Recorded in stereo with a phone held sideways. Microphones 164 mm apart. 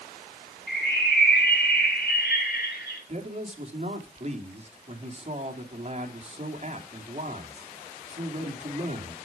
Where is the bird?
85° left, 5.5 m.